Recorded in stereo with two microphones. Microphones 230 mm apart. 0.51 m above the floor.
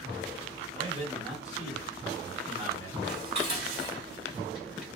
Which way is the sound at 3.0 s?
40° left (ahead or behind).